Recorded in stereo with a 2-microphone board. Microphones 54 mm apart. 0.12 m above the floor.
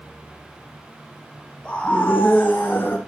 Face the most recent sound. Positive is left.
turn(degrees=40)  # may be behind; listen again after turning